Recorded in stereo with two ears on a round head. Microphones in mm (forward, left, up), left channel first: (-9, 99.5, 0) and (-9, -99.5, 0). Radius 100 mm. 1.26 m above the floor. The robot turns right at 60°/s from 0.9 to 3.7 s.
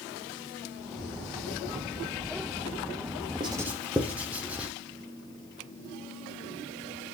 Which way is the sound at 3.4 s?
25° right (ahead or behind).